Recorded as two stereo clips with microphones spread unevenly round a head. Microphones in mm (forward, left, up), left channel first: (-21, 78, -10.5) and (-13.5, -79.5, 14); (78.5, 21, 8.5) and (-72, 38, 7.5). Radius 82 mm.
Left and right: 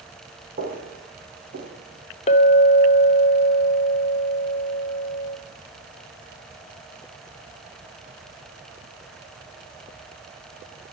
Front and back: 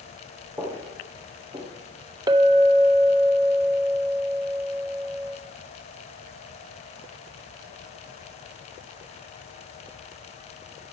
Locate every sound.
0.6 s footsteps: 110° right, 4 m; by 1.7 s 115° right, 4.5 m
2.3 s a clink: 125° left, 0.7 m